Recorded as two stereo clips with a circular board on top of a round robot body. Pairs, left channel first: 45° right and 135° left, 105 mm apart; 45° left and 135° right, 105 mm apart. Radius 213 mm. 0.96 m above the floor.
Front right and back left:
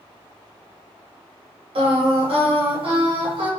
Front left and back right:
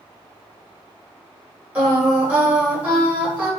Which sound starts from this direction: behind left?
Singing, at 1.8 s.